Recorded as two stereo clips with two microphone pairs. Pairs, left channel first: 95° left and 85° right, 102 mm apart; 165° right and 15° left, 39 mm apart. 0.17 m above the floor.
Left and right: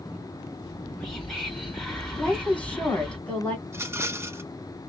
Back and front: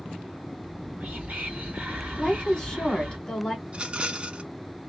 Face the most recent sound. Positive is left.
turn(degrees=-30)